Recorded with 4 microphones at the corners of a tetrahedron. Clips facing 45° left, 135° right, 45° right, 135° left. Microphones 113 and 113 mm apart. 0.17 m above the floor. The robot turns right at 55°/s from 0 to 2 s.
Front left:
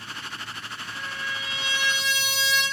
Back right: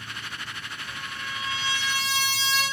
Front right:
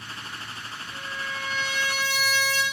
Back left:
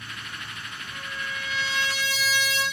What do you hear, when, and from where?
0.9 s a trumpet: 110° right, 3 m; by 2.6 s 50° right, 3 m